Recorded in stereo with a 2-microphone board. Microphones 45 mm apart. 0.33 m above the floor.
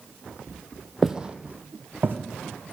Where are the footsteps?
10° right (ahead or behind), 0.6 m; by 2.2 s 55° right (ahead or behind), 1.2 m.